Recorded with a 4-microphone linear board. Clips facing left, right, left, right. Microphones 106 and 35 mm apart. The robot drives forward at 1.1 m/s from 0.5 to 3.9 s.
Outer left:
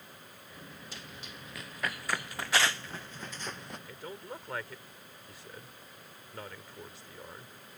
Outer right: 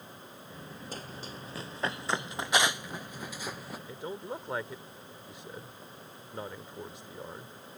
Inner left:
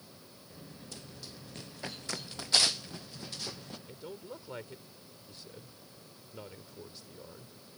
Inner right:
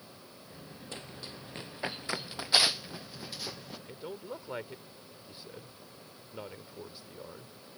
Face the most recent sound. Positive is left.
turn(degrees=-20)  # may be behind; listen again after turning